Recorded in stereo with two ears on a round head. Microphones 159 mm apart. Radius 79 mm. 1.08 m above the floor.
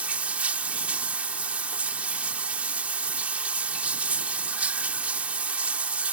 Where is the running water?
10° right (ahead or behind).